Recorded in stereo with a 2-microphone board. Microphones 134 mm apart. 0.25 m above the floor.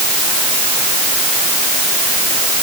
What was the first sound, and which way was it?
Only background noise.